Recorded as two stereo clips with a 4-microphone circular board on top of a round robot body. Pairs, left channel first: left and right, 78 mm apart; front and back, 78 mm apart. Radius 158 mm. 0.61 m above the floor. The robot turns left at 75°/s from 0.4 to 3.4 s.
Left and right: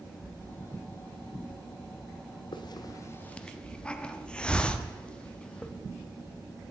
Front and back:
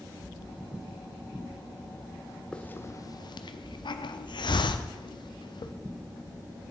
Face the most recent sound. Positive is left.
turn(degrees=15)